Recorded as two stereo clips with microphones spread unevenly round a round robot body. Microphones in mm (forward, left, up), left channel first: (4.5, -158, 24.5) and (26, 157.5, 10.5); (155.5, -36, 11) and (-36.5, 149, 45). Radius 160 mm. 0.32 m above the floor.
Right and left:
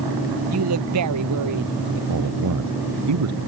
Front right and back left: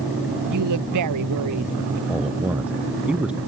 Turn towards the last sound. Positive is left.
turn(degrees=50)